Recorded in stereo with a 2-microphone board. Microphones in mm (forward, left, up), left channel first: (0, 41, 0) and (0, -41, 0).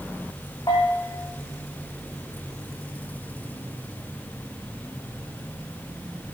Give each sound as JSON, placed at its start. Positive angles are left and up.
{"t": 0.7, "sound": "a bell", "side_deg": 55, "distance_m": 3.5}